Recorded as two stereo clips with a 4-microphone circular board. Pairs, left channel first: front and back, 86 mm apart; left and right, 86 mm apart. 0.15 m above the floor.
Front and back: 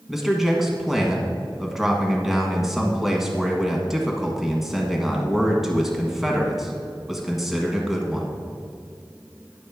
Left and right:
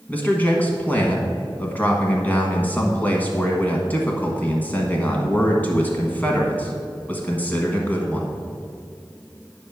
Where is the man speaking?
95° left, 1.2 m.